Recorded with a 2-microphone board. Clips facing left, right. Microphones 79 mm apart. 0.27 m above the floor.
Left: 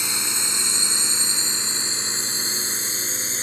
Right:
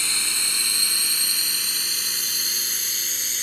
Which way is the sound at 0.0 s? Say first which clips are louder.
Left 2 dB; 20° left (ahead or behind).